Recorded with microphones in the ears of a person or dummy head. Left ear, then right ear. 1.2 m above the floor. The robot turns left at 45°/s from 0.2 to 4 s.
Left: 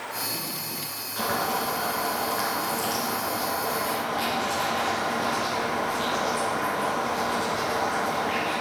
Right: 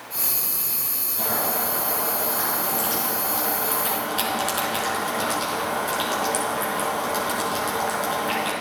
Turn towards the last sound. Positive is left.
turn(degrees=-50)